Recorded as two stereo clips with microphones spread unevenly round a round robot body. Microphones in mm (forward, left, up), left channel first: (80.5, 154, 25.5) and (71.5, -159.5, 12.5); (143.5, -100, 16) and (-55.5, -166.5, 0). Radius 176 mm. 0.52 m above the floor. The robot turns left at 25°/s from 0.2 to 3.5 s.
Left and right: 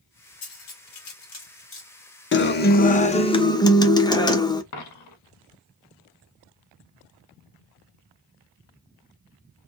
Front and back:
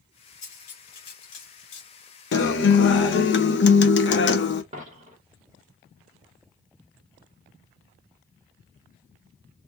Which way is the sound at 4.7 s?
125° left.